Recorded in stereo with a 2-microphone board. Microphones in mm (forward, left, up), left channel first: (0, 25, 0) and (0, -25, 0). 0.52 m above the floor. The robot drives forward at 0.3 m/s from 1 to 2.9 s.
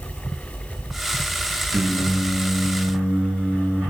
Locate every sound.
1.7 s singing: 50° right (ahead or behind), 0.6 m; by 3.8 s 30° right (ahead or behind), 0.8 m